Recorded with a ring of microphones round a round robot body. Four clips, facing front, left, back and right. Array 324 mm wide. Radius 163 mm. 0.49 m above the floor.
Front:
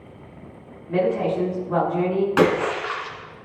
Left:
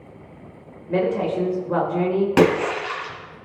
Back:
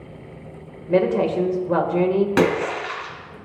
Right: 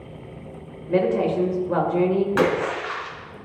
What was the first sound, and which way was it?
A woman speaking, 175° right.